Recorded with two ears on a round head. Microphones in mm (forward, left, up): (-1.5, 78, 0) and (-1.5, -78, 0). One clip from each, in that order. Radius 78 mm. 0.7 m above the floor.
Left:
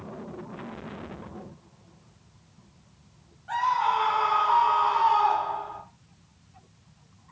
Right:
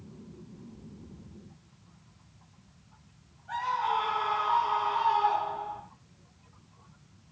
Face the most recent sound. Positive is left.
turn(degrees=50)  # may be behind; listen again after turning